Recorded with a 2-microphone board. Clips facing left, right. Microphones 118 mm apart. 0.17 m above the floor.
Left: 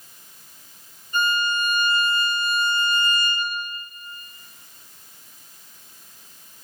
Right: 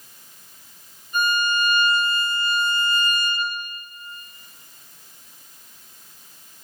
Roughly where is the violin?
Centre.